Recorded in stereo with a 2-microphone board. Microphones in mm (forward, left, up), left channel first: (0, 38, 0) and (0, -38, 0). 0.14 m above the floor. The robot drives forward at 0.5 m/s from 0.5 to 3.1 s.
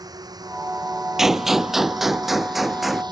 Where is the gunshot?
5° right (ahead or behind); by 3.0 s centre (ahead or behind).